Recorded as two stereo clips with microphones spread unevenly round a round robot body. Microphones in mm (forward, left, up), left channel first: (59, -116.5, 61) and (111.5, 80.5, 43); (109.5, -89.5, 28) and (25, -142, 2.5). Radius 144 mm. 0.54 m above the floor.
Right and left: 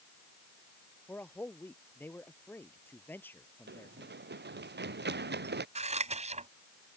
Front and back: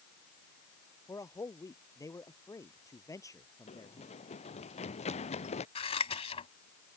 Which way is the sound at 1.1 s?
25° right.